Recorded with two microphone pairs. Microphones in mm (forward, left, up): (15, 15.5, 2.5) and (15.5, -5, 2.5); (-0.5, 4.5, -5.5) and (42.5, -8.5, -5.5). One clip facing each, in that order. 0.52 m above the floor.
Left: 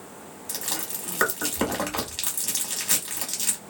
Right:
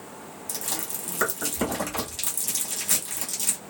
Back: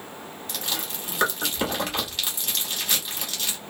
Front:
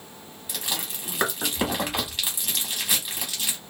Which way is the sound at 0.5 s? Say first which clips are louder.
Left 1 dB, even; 55° left.